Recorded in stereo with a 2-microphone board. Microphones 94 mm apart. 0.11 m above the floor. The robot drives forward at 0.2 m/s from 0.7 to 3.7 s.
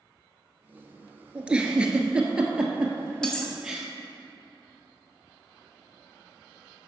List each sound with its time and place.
1.4 s a giggle: 15° right (ahead or behind), 0.6 m; by 3.9 s 10° right (ahead or behind), 1.0 m
3.2 s cutlery clinking: 10° left (ahead or behind), 1.0 m